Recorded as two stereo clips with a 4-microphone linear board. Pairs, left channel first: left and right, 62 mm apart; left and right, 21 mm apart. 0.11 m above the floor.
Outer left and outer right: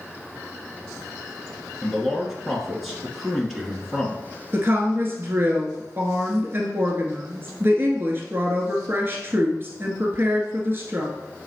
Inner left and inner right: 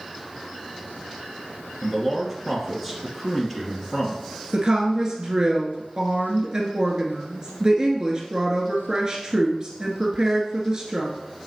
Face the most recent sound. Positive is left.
turn(degrees=-35)  # may be behind; listen again after turning